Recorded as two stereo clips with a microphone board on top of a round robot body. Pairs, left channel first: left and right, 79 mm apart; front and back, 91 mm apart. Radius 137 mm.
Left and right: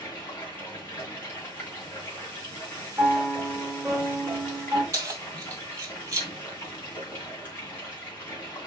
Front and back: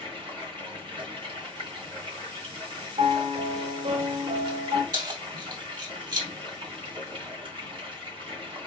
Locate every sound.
0.0 s running water: 155° left, 2.5 m
3.0 s a piano: 175° right, 1.2 m
4.9 s keys jangling: 140° right, 2 m